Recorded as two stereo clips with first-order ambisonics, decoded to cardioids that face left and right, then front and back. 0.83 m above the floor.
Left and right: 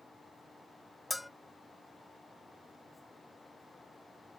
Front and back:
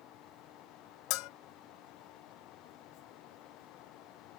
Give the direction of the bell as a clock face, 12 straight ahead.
12 o'clock.